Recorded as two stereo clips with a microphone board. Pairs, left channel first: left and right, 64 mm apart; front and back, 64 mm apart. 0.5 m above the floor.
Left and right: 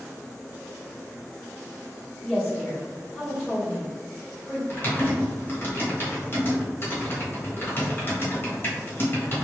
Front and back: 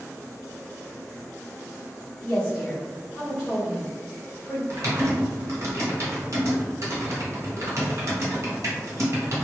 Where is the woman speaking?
55° left, 1.1 m.